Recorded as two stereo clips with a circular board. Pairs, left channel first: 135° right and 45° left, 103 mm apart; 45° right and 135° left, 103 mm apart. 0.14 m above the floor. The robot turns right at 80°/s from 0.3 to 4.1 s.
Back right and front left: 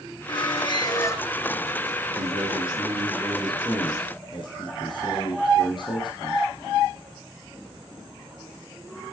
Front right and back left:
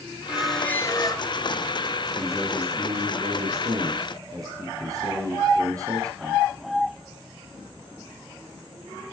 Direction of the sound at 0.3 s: 150° right.